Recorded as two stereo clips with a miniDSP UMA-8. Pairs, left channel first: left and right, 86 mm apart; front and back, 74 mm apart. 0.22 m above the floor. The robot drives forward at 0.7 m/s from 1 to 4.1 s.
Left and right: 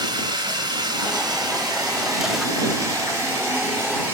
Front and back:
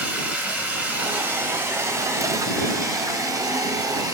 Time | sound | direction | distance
0.0 | running water | 115° right | 2 m